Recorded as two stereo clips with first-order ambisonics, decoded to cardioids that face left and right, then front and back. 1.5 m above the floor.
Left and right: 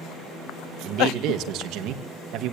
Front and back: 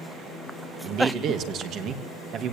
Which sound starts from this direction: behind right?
A man speaking, at 0.8 s.